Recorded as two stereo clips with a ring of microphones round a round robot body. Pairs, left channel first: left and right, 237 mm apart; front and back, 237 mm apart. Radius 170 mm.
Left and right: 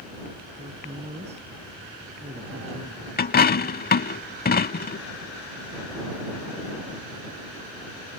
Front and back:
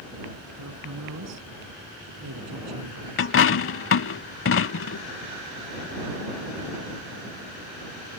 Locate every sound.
0.6 s a woman speaking: 160° right
3.2 s a dropped coin: 35° left